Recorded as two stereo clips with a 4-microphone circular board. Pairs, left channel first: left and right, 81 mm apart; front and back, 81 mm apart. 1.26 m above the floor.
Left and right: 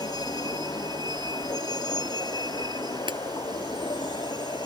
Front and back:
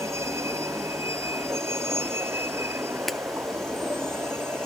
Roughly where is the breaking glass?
Right.